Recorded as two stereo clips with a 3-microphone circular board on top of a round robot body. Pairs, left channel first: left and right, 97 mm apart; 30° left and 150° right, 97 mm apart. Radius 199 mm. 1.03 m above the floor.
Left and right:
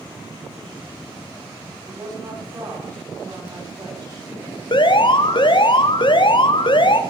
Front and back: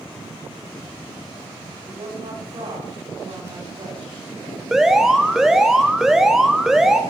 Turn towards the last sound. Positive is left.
turn(degrees=125)